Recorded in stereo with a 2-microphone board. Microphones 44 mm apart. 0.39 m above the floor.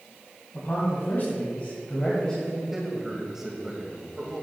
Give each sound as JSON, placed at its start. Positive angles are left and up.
{"t": 0.5, "sound": "a man speaking", "side_deg": 60, "distance_m": 2.5}
{"t": 2.7, "sound": "a man speaking", "side_deg": -15, "distance_m": 1.8}